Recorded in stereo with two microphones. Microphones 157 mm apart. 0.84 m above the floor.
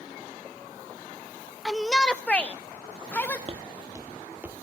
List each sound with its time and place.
1.6 s a shout: centre (ahead or behind), 0.7 m; by 3.4 s 15° left (ahead or behind), 1.9 m
3.5 s footsteps: 40° right (ahead or behind), 1.5 m; by 4.5 s 10° right (ahead or behind), 2.5 m